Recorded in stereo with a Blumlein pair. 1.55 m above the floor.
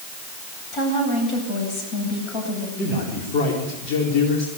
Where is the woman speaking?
35° left, 9 m.